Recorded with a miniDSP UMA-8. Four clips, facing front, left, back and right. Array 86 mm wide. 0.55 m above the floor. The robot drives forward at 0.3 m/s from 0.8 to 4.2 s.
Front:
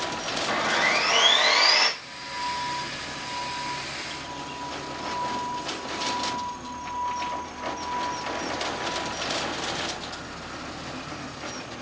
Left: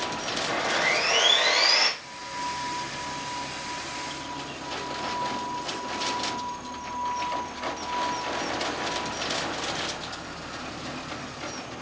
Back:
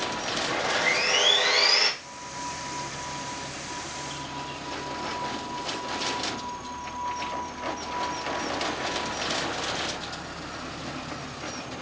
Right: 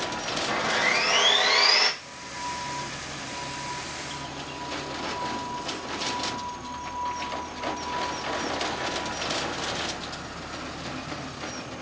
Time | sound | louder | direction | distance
0.5 | sawing | even, front 3 dB | 10° right | 1.6 m